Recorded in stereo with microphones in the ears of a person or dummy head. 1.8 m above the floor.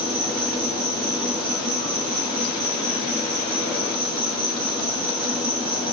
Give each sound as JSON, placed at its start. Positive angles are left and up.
{"t": 0.0, "sound": "an insect", "side_deg": -35, "distance_m": 2.5}